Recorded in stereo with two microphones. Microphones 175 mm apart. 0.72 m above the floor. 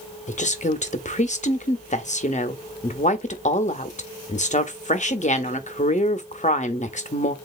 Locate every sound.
0.3 s a woman speaking: 40° left (ahead or behind), 0.8 m